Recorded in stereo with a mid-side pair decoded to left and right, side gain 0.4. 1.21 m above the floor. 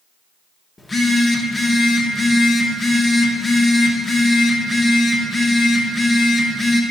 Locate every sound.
0.8 s a phone buzzing: 30° left, 1.3 m